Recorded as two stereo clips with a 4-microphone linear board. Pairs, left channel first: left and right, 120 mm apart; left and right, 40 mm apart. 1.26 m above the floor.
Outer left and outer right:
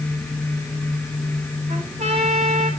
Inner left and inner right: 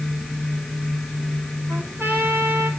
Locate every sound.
1.7 s a trumpet: 75° right (ahead or behind), 5.5 m